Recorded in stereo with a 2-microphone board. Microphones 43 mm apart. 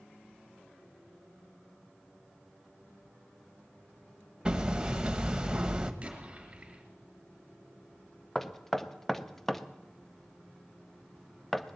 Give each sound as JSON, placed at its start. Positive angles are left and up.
{"t": 4.5, "sound": "hammering", "side_deg": -20, "distance_m": 0.9}
{"t": 6.0, "sound": "an explosion", "side_deg": -30, "distance_m": 3.5}
{"t": 8.3, "sound": "knocking", "side_deg": 10, "distance_m": 0.6}